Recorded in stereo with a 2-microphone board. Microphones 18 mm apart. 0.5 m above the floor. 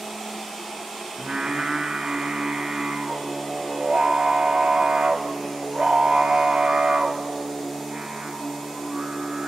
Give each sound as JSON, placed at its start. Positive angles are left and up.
{"t": 1.2, "sound": "singing", "side_deg": -75, "distance_m": 2.0}